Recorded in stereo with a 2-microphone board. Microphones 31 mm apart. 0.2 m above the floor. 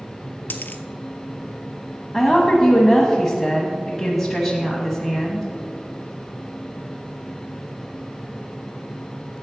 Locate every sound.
0.5 s a dropped coin: 90° left, 0.6 m
2.1 s a woman speaking: centre (ahead or behind), 1.1 m